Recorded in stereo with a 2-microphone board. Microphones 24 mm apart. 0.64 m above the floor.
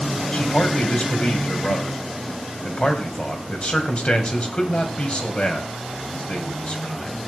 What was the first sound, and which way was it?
A man speaking, 55° left (ahead or behind).